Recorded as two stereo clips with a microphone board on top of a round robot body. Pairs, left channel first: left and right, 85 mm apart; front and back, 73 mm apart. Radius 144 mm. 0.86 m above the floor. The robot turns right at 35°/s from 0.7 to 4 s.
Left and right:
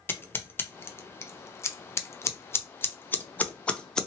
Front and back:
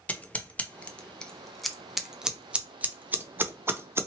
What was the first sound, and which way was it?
Scissors, 50° left.